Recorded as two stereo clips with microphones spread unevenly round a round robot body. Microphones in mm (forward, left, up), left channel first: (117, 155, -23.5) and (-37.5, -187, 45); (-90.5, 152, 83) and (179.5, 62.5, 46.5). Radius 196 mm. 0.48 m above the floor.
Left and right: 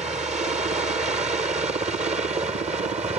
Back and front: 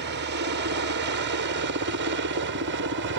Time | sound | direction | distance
0.0 | a helicopter | 40° right | ?